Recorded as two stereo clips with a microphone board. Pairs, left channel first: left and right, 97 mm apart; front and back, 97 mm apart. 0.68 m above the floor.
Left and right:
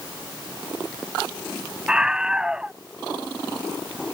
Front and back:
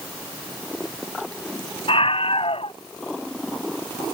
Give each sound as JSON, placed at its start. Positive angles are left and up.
{"t": 1.9, "sound": "a scream", "azimuth_deg": -10}